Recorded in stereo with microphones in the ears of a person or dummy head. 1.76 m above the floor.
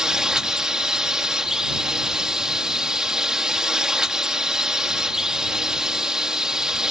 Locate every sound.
0.0 s a drone: 5° right (ahead or behind)